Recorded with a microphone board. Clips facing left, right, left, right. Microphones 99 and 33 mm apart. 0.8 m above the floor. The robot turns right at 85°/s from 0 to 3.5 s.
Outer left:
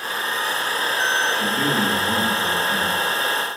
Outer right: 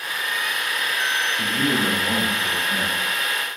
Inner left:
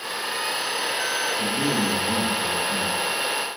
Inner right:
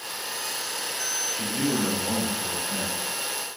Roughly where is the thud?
No thud in this recording.